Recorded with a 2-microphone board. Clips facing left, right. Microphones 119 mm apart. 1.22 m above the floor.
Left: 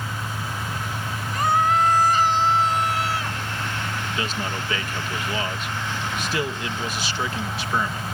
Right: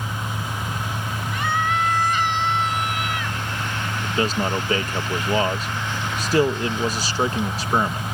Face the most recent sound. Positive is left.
turn(degrees=-40)  # may be behind; listen again after turning